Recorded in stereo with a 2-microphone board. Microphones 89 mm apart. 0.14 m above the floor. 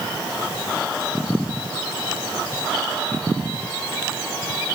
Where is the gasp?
I don't hear a gasp.